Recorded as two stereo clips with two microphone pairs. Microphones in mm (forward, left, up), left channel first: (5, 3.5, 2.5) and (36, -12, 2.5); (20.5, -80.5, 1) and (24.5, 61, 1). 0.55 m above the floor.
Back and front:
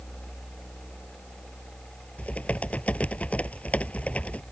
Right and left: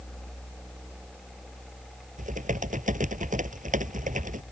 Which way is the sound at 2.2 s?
110° left.